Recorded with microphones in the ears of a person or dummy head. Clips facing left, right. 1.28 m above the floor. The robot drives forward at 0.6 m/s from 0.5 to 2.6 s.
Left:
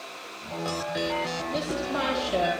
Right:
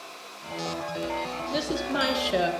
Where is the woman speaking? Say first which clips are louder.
Right 2 dB; 10° right (ahead or behind), 3.5 m; by 2.5 s 15° right (ahead or behind), 3 m.